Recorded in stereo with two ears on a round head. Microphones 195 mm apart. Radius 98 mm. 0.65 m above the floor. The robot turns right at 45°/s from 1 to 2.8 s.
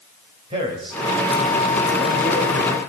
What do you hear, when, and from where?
0.5 s a man speaking: 25° right (ahead or behind), 3.5 m; by 2.8 s 50° left (ahead or behind), 3.5 m